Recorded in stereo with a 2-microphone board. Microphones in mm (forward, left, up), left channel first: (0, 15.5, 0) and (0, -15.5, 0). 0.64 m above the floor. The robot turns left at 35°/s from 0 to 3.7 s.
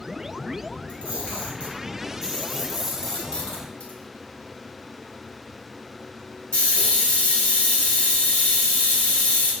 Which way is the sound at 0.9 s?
55° right (ahead or behind).